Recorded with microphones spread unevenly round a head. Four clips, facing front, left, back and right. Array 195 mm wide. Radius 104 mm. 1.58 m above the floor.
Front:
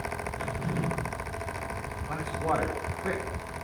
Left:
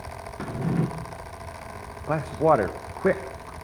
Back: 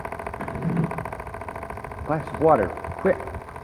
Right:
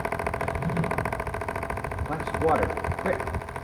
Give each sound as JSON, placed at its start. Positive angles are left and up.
{"t": 0.4, "sound": "a drawer", "azimuth_deg": 130, "distance_m": 2.0}
{"t": 2.1, "sound": "a man speaking", "azimuth_deg": 155, "distance_m": 1.6}